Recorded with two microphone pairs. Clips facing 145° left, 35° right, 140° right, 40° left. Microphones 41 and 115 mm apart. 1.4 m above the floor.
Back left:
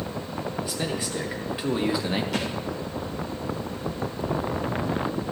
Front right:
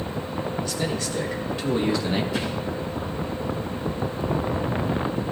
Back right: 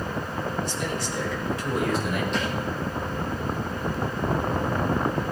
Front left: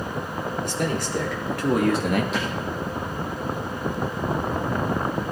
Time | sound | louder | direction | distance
0.6 | a man speaking | front right 2 dB, front left 3 dB | 70° left | 5 m
2.3 | a thud | front right 1 dB, even | 130° left | 8.5 m